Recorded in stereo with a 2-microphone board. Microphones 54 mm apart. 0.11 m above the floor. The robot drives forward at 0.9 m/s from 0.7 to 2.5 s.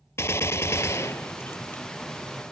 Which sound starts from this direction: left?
A gunshot, at 0.2 s.